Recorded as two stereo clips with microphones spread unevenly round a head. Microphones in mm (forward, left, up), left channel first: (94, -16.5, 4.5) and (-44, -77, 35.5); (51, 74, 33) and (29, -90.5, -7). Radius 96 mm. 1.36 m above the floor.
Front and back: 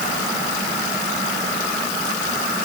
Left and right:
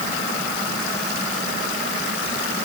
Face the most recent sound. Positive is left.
No sound to turn to.